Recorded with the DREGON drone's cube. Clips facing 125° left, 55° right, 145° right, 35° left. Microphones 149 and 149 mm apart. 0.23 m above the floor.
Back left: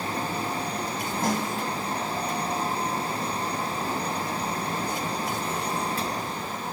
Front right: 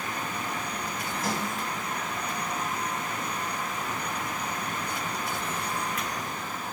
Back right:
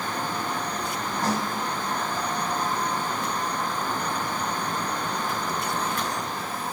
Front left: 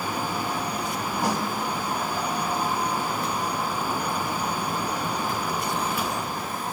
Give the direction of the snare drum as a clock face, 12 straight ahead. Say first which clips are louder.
Back left 4 dB, even; 8 o'clock.